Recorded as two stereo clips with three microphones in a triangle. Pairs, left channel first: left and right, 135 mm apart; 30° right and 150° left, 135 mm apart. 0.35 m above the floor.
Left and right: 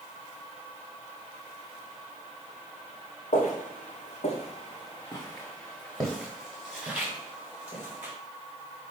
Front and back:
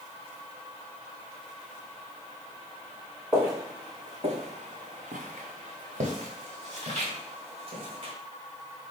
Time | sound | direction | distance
3.3 | footsteps | 75° left | 1.4 m